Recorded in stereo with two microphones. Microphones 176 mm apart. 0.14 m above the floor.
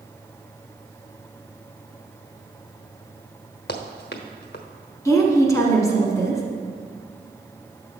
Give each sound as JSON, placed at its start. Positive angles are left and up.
{"t": 3.7, "sound": "running footsteps", "side_deg": 70, "distance_m": 1.0}
{"t": 5.0, "sound": "a woman speaking", "side_deg": 20, "distance_m": 1.1}